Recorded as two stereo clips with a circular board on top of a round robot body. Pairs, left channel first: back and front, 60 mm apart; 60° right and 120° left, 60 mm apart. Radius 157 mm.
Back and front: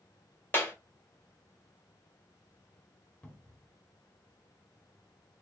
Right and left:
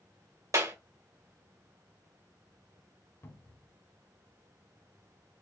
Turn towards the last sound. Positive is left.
turn(degrees=-110)